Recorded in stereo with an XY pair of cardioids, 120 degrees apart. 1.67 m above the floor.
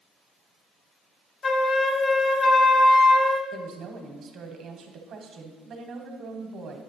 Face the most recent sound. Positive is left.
turn(degrees=-55)